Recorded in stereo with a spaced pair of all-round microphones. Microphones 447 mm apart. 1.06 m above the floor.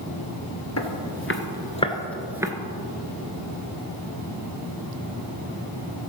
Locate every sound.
0.8 s footsteps: 35° left (ahead or behind), 1.3 m; by 2.5 s 10° right (ahead or behind), 1.1 m